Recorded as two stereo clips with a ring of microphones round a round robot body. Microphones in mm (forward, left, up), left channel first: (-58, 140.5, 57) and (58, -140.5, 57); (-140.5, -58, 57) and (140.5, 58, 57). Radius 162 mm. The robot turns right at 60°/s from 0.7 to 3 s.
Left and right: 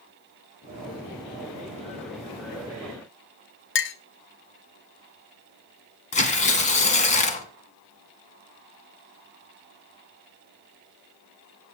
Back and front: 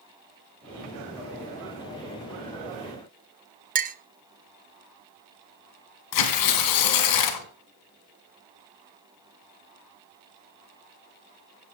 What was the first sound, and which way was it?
A clink, 80° left.